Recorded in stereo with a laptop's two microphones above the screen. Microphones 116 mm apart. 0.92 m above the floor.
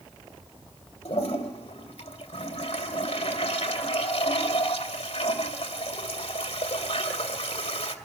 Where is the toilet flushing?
70° left (ahead or behind), 2 m.